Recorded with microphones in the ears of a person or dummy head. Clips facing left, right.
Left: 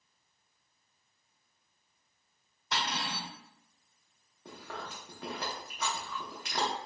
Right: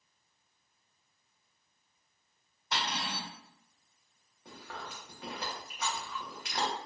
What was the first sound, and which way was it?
Cutlery clinking, 70° left (ahead or behind).